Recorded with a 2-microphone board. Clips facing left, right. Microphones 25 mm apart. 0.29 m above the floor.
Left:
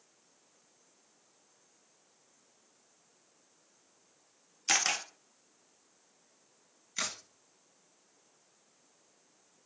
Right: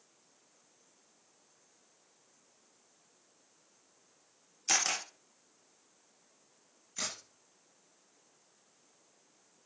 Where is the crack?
40° left (ahead or behind), 2 m.